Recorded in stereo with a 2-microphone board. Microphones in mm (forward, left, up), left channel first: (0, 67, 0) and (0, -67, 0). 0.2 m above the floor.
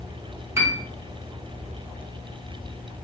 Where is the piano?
20° right (ahead or behind), 0.6 m.